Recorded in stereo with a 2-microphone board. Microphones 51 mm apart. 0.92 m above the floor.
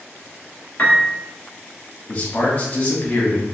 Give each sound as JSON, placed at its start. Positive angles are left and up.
{"t": 0.8, "sound": "a piano", "side_deg": 30, "distance_m": 0.9}
{"t": 2.1, "sound": "a man speaking", "side_deg": 30, "distance_m": 1.3}